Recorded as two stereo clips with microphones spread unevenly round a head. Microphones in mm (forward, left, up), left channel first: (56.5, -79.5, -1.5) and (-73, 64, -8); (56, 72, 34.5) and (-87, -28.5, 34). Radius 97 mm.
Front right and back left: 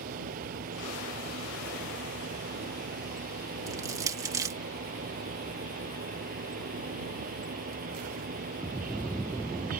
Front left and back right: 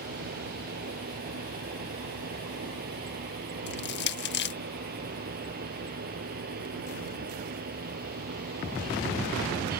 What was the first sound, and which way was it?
A fan, straight behind.